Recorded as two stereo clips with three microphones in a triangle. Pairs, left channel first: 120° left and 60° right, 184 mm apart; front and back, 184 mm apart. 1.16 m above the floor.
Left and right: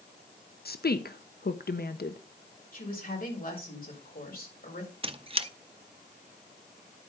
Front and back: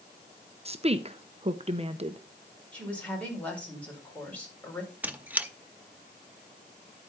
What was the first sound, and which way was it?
A woman speaking, 130° left.